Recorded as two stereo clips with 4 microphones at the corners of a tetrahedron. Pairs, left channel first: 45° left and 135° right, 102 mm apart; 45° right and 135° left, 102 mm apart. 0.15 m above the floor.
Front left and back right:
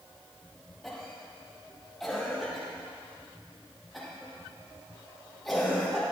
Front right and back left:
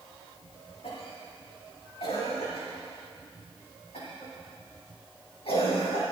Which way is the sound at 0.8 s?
45° right.